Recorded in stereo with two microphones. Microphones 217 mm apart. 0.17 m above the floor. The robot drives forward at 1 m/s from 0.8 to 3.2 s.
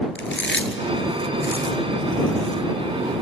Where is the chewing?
70° left (ahead or behind), 1.5 m; by 2.6 s 35° left (ahead or behind), 2.5 m.